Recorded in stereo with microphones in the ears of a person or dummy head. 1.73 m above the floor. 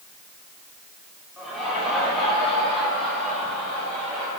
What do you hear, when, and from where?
1.4 s laughter: centre (ahead or behind), 5 m; by 4.3 s 5° left (ahead or behind), 7.5 m